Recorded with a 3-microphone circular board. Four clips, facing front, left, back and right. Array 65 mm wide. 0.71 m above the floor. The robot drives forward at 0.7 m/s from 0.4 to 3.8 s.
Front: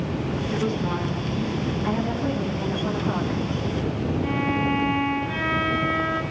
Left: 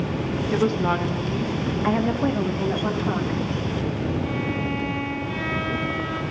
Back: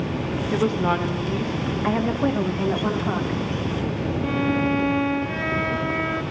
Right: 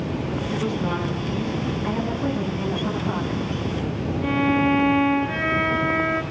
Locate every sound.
0.5 s a woman speaking: 125° left, 0.7 m; by 1.7 s 160° left, 1.3 m
1.8 s a woman speaking: 135° left, 0.9 m; by 3.4 s 165° left, 1.7 m
4.2 s a violin: 105° right, 0.7 m